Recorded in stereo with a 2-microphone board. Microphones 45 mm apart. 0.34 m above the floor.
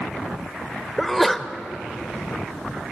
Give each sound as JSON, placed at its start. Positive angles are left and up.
{"t": 1.0, "sound": "a sneeze", "side_deg": 0, "distance_m": 0.9}